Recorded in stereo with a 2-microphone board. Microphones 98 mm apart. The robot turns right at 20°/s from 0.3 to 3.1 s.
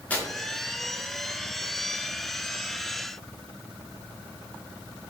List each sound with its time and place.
0.1 s tearing paper: 15° left (ahead or behind), 0.8 m